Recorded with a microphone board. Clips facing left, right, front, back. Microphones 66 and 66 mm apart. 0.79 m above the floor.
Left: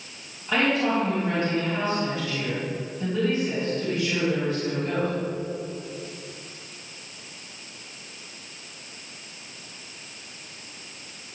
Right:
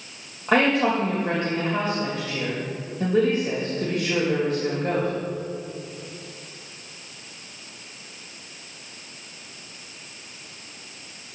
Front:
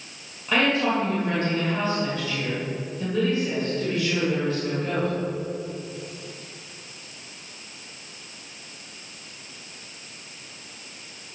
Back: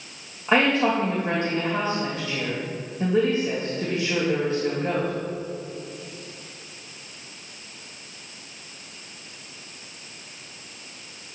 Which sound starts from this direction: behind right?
A woman speaking, at 0.5 s.